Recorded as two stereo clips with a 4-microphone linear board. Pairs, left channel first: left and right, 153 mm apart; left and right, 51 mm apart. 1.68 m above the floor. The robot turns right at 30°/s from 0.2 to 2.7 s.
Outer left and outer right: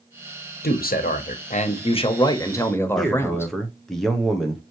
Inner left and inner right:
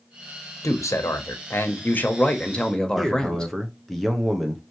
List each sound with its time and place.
0.6 s a man speaking: 105° left, 0.9 m; by 3.5 s 165° left, 0.9 m
3.0 s a man speaking: centre (ahead or behind), 0.7 m